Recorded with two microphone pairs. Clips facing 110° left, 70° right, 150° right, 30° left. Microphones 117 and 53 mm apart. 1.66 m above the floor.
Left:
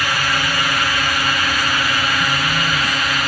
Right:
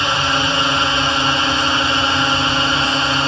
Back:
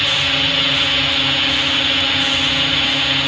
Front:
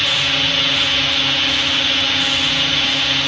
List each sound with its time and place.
0.0 s a drone: 70° right